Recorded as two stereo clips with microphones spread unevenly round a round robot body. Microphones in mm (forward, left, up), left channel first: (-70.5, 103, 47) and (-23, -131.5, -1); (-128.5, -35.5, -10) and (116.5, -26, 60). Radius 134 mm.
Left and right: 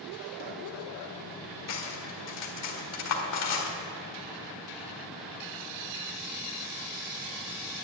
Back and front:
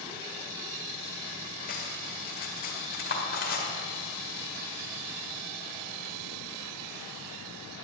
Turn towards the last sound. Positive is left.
turn(degrees=125)